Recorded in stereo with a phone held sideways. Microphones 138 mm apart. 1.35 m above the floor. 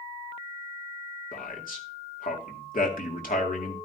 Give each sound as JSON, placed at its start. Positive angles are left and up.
{"t": 1.3, "sound": "a man speaking", "side_deg": 85, "distance_m": 2.5}